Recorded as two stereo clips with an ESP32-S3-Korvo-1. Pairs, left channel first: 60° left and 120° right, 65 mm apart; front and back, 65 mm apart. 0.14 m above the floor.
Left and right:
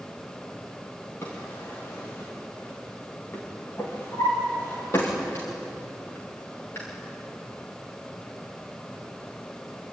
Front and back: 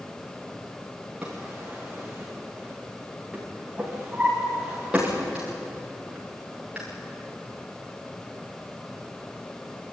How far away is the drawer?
About 7 m.